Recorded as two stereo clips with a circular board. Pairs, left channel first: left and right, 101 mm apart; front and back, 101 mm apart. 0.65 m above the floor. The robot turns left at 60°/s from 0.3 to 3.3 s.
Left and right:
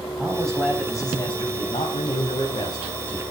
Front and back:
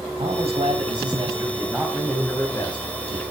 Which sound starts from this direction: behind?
A man speaking, at 0.2 s.